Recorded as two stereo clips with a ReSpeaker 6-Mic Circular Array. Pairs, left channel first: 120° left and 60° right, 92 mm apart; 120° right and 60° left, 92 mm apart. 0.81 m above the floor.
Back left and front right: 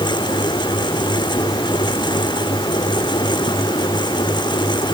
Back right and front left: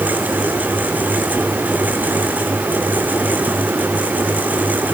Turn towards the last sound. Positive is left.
No sound to turn to.